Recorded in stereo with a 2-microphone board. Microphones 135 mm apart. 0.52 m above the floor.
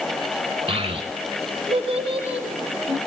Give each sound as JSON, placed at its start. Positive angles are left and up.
{"t": 0.7, "sound": "a child speaking", "side_deg": -45, "distance_m": 1.5}